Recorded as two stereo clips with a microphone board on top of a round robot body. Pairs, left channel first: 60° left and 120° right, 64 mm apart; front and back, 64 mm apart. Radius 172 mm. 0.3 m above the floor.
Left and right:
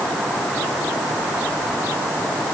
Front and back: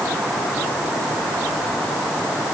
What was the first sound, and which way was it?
Only background noise.